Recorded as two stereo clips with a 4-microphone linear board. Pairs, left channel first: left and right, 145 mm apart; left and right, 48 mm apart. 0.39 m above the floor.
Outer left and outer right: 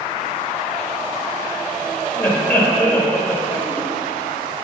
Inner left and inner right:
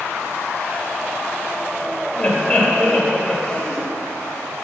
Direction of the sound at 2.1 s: 10° left (ahead or behind).